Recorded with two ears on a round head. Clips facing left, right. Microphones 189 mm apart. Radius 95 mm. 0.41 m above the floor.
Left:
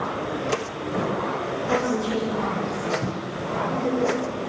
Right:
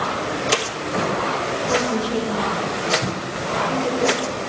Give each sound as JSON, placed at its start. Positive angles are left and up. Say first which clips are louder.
{"t": 1.7, "sound": "a woman speaking", "louder": "right 1 dB", "side_deg": -10, "distance_m": 8.5}